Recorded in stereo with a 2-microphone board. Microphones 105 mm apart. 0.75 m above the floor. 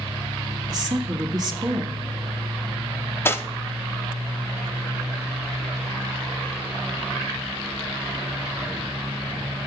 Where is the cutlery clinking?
20° left (ahead or behind), 0.5 m.